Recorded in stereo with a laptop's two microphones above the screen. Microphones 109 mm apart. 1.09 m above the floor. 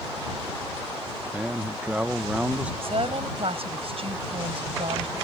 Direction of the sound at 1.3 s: 10° right (ahead or behind).